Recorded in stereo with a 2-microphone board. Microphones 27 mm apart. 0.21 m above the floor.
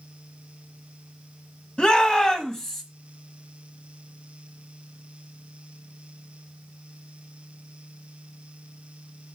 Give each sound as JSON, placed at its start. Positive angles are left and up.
{"t": 1.8, "sound": "a shout", "side_deg": 35, "distance_m": 1.7}